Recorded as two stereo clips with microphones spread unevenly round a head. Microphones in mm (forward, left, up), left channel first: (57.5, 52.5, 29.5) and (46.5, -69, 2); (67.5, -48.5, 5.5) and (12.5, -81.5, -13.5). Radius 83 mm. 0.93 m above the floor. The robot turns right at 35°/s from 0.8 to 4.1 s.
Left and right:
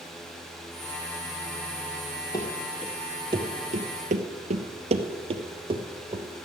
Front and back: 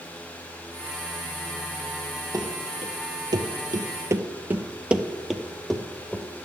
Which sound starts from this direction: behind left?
Running footsteps, at 2.3 s.